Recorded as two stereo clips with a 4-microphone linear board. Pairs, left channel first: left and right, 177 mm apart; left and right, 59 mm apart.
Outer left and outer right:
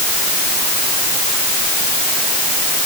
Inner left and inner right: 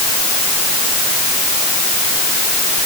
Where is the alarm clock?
No alarm clock in this recording.